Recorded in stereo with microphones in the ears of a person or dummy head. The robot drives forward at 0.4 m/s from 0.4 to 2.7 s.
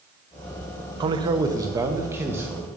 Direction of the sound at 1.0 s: 25° right (ahead or behind).